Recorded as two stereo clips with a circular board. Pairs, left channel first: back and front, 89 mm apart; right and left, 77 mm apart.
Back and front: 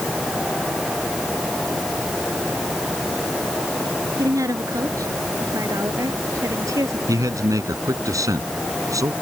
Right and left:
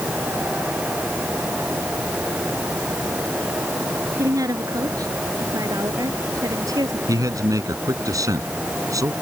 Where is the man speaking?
50° left.